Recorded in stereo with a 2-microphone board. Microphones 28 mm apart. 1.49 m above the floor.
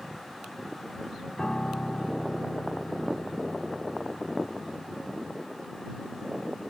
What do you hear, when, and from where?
1.4 s a piano: 30° left (ahead or behind)